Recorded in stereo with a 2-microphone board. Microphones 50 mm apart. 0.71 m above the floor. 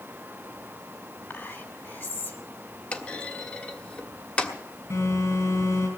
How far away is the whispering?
About 2.5 m.